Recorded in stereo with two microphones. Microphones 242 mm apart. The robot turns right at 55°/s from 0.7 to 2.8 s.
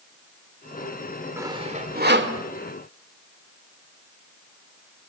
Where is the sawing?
10° right (ahead or behind), 1.9 m; by 2.4 s 60° right (ahead or behind), 1.9 m.